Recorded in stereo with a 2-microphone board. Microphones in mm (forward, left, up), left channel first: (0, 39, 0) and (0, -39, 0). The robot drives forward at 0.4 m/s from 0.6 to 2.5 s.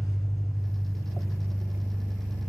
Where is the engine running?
45° left (ahead or behind), 2.5 m; by 2.5 s 35° left (ahead or behind), 3 m.